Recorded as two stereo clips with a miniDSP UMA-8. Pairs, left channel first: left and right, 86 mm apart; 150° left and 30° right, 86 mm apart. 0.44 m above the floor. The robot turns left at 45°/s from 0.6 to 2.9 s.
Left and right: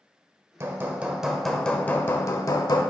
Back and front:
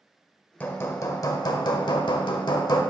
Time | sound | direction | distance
0.6 | hammering | 145° right | 0.7 m